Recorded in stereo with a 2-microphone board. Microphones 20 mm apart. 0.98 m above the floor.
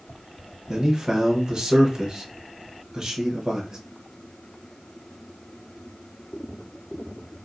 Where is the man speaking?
35° right (ahead or behind), 0.8 m.